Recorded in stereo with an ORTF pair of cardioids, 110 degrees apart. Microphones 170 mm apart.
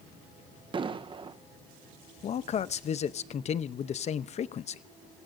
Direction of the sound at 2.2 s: 45° left.